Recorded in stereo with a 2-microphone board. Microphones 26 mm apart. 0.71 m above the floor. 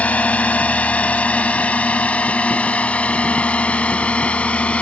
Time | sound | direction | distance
0.0 | a drone | 60° left (ahead or behind) | ?